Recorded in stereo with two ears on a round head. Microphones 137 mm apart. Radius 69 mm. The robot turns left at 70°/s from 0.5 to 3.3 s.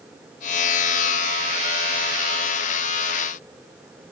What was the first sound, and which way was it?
Only background noise.